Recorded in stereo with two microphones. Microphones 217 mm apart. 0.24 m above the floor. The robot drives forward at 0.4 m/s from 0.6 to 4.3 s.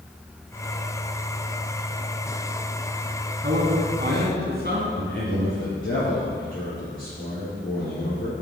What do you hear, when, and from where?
3.4 s a man speaking: 50° right (ahead or behind), 2 m
4.9 s a man speaking: 65° left (ahead or behind), 3.5 m